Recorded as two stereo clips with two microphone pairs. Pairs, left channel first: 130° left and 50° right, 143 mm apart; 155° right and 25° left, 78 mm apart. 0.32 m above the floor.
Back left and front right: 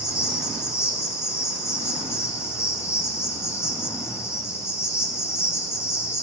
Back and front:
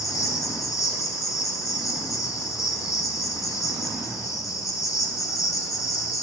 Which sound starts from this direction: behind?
An insect, at 0.0 s.